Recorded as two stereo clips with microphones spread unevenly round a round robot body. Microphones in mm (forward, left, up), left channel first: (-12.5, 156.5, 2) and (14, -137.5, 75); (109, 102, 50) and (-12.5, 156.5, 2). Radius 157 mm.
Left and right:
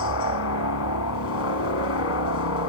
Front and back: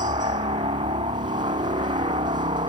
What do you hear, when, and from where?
0.0 s a helicopter: 120° left